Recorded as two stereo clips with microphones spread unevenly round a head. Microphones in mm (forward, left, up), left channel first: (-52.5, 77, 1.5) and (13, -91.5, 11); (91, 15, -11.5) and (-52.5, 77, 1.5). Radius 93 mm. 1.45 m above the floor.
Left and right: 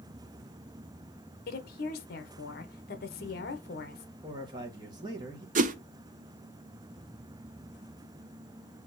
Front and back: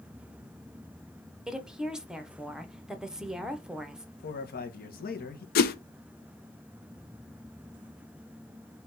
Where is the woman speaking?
70° left, 1.0 m.